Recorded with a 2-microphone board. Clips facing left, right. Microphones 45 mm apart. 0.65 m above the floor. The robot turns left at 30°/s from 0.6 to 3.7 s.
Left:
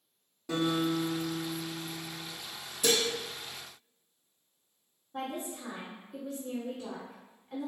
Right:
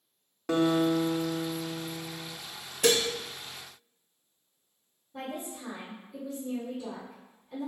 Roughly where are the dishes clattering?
Right.